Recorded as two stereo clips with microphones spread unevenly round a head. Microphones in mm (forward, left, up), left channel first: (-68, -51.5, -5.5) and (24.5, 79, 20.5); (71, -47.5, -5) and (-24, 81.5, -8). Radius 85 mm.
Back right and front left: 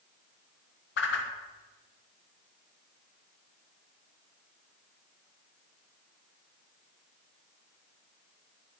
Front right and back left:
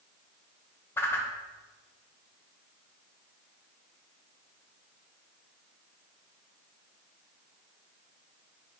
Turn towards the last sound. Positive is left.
turn(degrees=-130)